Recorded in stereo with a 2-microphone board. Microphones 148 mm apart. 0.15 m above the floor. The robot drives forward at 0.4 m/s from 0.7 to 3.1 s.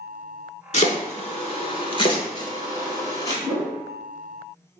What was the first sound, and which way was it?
Chopping, 55° left (ahead or behind).